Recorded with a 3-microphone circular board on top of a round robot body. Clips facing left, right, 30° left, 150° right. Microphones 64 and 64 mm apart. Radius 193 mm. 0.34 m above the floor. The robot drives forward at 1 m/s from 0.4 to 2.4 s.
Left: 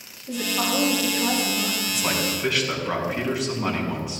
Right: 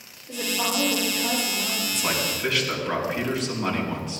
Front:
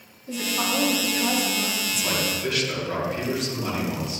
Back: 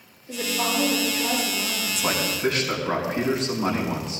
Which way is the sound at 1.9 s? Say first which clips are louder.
Even, back 1 dB; 170° left.